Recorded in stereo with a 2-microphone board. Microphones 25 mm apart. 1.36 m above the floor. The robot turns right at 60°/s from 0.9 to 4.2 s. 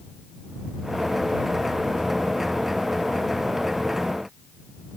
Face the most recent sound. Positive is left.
No sound to turn to.